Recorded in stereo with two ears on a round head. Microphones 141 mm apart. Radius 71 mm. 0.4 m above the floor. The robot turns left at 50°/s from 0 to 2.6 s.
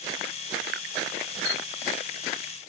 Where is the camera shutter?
40° left (ahead or behind); by 1.6 s 35° left (ahead or behind).